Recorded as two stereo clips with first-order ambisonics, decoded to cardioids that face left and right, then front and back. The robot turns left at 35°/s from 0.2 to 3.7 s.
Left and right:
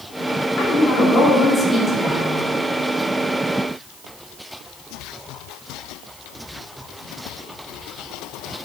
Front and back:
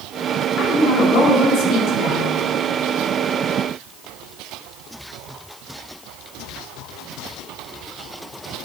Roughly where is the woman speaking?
Ahead left.